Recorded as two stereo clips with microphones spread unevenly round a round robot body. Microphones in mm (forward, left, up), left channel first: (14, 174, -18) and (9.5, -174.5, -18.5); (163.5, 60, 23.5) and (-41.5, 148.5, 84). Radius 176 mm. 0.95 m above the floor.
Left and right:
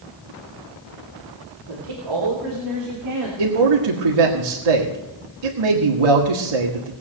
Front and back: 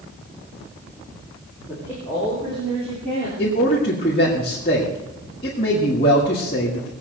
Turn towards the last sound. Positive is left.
turn(degrees=-90)